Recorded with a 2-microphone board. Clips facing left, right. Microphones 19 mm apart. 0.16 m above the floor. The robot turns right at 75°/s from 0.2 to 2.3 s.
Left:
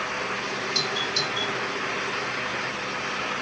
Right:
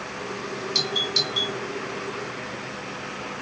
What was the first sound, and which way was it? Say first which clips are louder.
A doorbell: right 4 dB; 35° right (ahead or behind).